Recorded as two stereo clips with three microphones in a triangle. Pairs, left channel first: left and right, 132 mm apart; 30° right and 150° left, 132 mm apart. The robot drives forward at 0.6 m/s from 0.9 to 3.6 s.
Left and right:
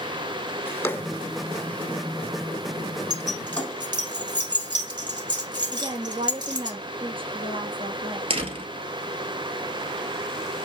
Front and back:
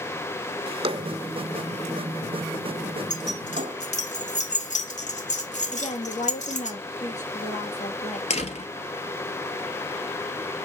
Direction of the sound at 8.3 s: 50° right.